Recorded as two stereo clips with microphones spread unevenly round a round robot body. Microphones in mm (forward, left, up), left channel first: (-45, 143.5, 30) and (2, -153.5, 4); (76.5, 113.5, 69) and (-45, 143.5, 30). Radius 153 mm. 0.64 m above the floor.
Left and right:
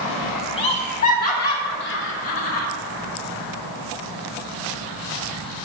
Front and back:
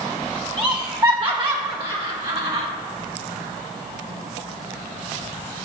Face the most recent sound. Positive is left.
turn(degrees=140)